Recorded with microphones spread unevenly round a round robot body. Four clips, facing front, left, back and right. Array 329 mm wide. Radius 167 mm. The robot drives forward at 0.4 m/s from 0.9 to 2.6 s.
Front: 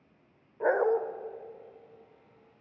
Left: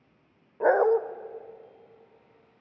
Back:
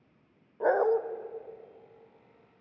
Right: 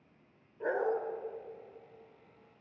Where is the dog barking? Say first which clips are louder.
Left 11 dB, back 1 dB; 60° left, 1.0 m; by 1.0 s 65° left, 0.9 m.